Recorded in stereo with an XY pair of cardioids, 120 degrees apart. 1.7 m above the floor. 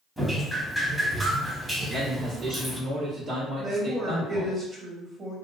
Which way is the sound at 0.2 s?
5° right.